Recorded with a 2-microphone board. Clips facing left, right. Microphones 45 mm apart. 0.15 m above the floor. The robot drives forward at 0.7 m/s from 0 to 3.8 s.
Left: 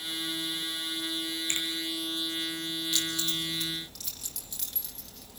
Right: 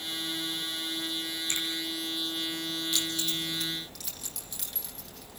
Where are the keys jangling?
Centre (ahead or behind), 3 m.